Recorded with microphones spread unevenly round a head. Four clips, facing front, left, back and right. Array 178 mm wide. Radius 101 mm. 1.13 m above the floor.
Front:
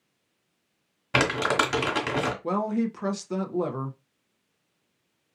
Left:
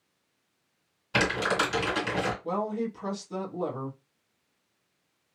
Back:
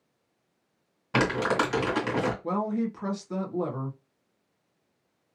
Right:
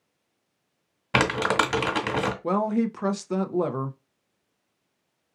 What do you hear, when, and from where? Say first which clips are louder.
1.1 s crumpling: right 4 dB, front 1 dB; 55° right, 1.5 m
2.4 s a woman speaking: right 6 dB, front 2 dB; 70° right, 0.6 m